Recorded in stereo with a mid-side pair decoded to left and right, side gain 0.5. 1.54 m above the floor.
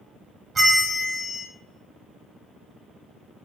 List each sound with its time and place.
0.6 s a bell: 30° right, 1.2 m